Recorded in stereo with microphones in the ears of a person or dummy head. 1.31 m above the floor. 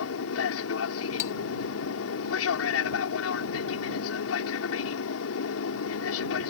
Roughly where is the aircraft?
Left.